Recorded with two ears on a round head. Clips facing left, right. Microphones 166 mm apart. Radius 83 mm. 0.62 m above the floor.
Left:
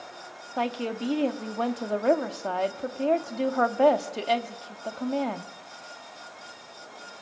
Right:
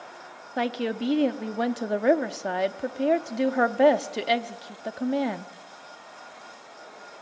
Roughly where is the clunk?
I don't hear a clunk.